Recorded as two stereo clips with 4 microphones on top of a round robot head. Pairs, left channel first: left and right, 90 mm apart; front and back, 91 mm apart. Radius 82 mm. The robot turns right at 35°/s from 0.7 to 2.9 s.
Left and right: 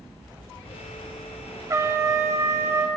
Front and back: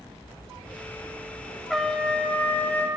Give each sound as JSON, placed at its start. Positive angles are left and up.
{"t": 1.7, "sound": "a trumpet", "azimuth_deg": -85, "distance_m": 0.8}